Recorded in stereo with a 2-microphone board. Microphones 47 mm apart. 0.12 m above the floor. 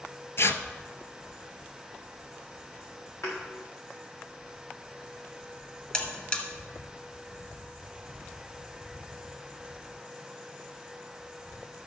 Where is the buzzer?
25° left (ahead or behind), 1.8 m.